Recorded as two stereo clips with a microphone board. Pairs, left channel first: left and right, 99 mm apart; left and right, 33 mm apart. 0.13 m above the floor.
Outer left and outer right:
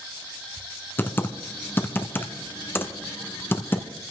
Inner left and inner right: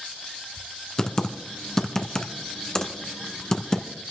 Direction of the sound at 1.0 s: 20° left (ahead or behind).